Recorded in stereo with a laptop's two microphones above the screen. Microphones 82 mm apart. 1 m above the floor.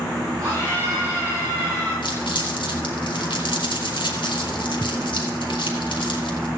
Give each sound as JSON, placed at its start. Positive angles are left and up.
{"t": 0.4, "sound": "a scream", "side_deg": -40, "distance_m": 6.0}
{"t": 2.0, "sound": "crumpling", "side_deg": 80, "distance_m": 3.5}